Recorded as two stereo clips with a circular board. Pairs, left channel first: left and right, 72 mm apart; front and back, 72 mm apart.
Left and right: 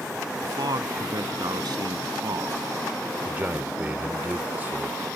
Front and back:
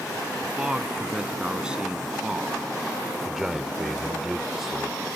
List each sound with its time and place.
0.4 s a man speaking: 100° right
3.2 s a man speaking: 100° right